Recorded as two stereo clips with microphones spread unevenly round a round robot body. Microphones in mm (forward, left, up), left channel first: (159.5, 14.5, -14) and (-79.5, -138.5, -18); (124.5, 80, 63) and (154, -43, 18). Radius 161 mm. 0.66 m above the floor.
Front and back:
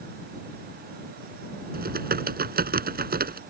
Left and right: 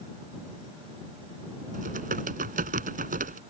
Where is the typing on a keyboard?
90° right.